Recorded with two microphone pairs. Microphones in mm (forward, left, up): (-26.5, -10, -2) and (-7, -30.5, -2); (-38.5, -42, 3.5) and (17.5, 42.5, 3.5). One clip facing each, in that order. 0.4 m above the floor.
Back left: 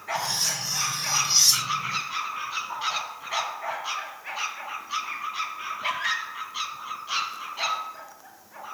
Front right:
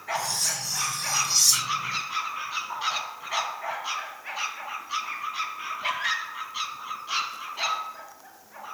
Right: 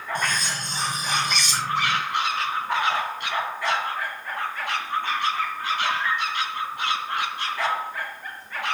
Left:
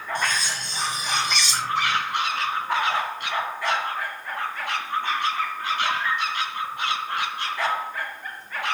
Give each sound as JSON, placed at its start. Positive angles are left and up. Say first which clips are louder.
{"t": 0.1, "sound": "cutlery clinking", "louder": "back left 2 dB, even", "azimuth_deg": -165, "distance_m": 3.5}